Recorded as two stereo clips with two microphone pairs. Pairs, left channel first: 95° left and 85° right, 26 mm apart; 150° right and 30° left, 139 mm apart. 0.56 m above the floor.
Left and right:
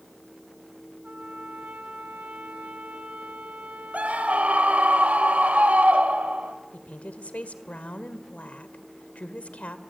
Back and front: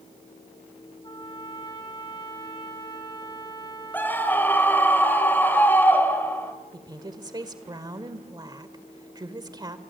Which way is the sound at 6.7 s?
85° left.